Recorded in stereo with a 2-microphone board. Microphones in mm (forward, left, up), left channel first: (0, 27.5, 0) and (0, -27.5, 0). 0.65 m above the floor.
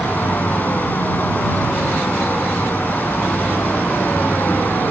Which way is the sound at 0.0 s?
35° left (ahead or behind).